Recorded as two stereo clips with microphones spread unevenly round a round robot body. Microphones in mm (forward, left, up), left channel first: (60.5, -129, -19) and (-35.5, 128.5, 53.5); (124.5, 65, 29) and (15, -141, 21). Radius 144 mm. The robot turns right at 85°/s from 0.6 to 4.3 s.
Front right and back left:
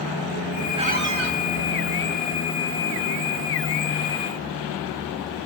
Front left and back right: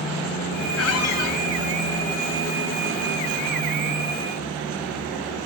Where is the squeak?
40° left, 3 m; by 1.4 s 90° left, 3 m.